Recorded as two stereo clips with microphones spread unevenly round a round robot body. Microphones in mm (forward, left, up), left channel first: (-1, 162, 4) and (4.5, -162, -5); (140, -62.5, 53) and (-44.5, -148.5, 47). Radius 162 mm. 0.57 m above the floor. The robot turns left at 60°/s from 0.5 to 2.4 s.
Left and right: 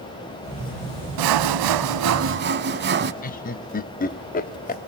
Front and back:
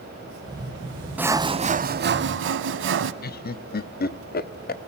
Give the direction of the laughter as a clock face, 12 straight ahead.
11 o'clock.